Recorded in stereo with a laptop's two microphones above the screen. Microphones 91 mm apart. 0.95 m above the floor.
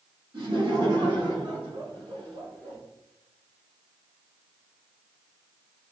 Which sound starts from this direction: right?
Laughter, at 0.3 s.